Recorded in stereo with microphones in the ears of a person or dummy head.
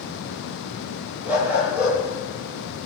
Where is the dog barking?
5° right (ahead or behind), 5.5 m.